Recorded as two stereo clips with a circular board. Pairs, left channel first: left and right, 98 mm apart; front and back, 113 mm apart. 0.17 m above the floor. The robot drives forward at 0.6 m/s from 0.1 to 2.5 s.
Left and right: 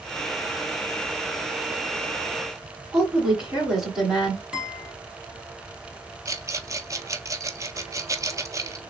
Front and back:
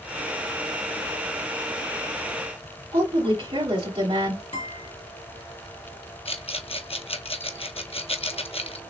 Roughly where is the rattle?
Ahead right.